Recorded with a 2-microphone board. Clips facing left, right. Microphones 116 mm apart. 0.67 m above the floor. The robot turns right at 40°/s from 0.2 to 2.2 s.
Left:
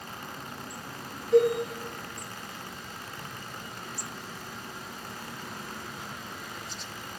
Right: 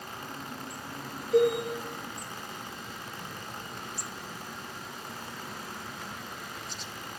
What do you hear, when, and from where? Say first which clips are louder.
1.3 s a cowbell: left 2 dB; 50° left (ahead or behind), 0.9 m; by 1.6 s 45° left (ahead or behind), 0.9 m